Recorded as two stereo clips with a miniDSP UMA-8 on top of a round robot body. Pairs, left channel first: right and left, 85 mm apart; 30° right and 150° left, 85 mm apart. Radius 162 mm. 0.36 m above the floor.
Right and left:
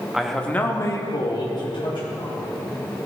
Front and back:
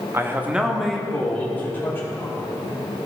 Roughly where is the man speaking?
Behind.